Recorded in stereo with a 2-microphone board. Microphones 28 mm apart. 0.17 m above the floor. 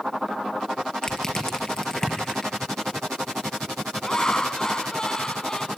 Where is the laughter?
25° left (ahead or behind), 1.1 m.